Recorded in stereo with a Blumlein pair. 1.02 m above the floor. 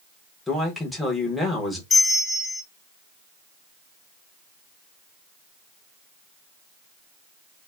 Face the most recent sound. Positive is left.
turn(degrees=15)